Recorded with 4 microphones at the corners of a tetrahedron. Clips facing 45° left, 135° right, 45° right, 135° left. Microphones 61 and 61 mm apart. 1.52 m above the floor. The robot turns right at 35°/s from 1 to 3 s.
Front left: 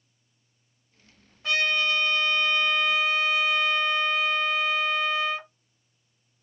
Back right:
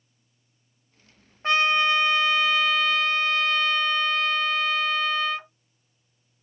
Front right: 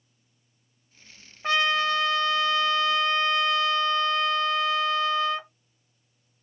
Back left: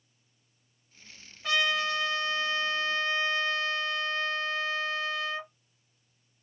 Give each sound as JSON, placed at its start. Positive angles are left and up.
{"t": 1.4, "sound": "a trumpet", "azimuth_deg": -90, "distance_m": 1.0}